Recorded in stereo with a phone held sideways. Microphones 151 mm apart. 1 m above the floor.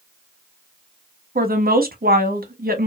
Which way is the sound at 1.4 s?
80° right.